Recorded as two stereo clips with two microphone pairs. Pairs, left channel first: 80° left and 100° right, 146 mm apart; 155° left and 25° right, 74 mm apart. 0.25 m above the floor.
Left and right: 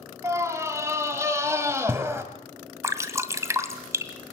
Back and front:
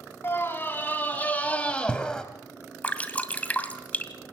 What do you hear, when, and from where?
0.2 s a scream: 160° right, 2.5 m; by 2.2 s 135° right, 1.6 m
2.8 s dripping: 150° right, 1.7 m